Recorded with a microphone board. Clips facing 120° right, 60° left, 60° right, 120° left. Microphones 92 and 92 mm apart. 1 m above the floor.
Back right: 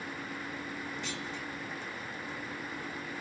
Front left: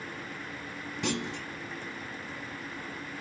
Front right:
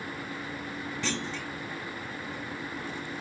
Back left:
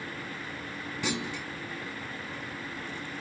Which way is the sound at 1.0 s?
40° left.